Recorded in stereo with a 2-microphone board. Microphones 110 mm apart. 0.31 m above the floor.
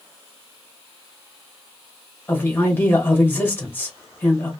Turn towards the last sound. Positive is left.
turn(degrees=20)  # may be behind; listen again after turning